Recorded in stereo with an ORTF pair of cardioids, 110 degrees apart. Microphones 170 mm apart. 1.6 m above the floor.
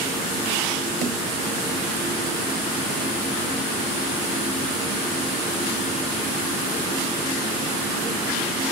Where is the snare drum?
60° right, 6.5 m.